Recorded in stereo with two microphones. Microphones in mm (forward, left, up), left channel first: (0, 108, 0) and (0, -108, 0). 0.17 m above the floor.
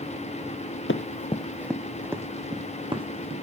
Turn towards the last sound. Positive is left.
turn(degrees=-25)  # may be behind; listen again after turning